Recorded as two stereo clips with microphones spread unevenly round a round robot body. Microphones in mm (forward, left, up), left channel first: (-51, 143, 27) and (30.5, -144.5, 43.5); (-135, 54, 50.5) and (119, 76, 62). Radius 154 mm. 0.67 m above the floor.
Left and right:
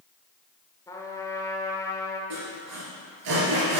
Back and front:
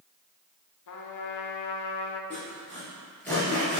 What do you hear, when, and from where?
0.9 s a trumpet: 175° right, 0.9 m
2.3 s sawing: 90° right, 3 m